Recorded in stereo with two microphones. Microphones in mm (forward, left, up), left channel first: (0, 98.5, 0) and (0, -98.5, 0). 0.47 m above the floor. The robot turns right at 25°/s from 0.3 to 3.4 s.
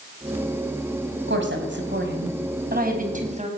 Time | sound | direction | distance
1.3 | a woman speaking | 90° right | 3.5 m